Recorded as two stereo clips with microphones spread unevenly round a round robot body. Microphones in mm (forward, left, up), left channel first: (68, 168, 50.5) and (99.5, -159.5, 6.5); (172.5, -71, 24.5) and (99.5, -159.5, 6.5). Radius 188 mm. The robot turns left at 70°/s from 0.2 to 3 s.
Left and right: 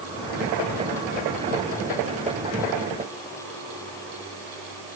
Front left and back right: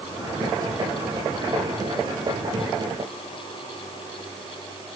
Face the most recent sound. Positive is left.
No sound to turn to.